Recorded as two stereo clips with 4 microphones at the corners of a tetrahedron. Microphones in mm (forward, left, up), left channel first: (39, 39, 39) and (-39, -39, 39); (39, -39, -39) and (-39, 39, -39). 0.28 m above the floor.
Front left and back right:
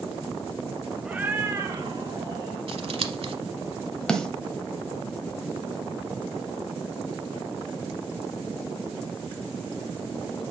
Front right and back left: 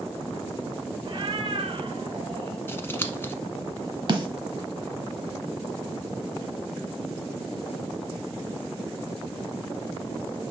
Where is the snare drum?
125° left, 1.1 m.